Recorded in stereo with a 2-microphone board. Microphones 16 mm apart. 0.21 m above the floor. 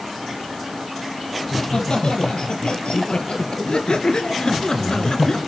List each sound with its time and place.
1.4 s laughter: 70° left (ahead or behind), 5.5 m; by 5.4 s 40° left (ahead or behind), 2.5 m